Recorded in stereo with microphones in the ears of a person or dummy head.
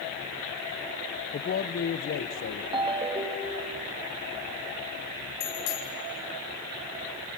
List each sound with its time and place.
1.3 s a man speaking: 40° left (ahead or behind), 0.8 m; by 2.6 s 65° left (ahead or behind), 1.3 m
2.7 s a ringtone: 25° right (ahead or behind), 1.4 m
5.4 s a bicycle bell: 75° left (ahead or behind), 5.5 m